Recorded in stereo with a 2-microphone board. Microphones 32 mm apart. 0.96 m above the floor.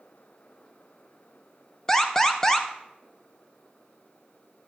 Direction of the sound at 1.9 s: 20° left (ahead or behind).